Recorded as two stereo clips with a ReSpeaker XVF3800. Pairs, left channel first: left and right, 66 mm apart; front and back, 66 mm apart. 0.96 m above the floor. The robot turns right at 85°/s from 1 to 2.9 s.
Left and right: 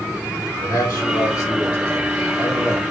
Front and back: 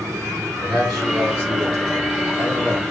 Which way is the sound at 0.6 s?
85° left.